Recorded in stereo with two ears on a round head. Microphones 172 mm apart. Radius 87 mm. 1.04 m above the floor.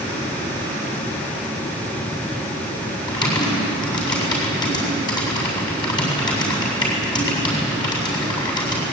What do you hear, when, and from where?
3.1 s typing on a keyboard: 25° left (ahead or behind), 7.5 m